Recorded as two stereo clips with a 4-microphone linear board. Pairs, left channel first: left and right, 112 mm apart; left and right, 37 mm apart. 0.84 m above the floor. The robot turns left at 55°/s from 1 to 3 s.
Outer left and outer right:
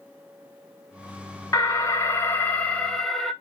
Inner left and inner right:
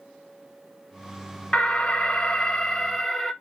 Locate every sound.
1.5 s an alarm: 30° left (ahead or behind), 0.6 m; by 3.3 s centre (ahead or behind), 0.6 m